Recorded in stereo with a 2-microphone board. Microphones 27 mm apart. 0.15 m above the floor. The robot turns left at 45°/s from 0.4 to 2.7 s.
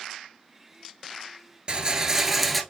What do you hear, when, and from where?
1.7 s a rattle: 140° right, 0.6 m; by 2.6 s straight behind, 0.6 m